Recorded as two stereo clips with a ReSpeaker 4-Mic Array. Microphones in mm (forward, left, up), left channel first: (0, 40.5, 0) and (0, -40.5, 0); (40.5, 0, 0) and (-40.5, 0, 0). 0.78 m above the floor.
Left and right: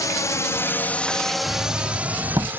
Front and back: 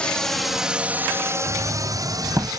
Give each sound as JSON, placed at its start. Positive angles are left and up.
{"t": 0.0, "sound": "a drone", "azimuth_deg": 75}
{"t": 1.5, "sound": "knocking", "azimuth_deg": -125}